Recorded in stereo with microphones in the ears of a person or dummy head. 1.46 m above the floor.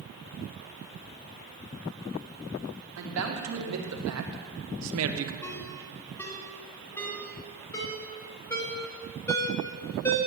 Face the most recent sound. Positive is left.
turn(degrees=10)  # may be behind; listen again after turning